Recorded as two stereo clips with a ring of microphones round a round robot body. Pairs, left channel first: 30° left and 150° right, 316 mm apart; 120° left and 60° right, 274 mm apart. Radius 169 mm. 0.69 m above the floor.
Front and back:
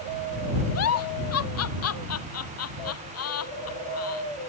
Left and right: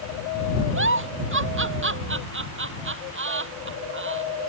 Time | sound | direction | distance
0.8 | a giggle | 15° right | ?